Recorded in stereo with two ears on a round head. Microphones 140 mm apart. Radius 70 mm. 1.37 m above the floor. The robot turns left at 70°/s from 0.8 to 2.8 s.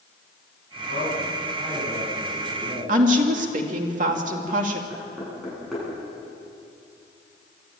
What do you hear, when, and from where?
0.8 s a man speaking: 110° left, 10 m; by 3.0 s 30° right, 10 m
2.9 s a woman speaking: 50° right (ahead or behind), 2.5 m
4.9 s knocking: centre (ahead or behind), 9.5 m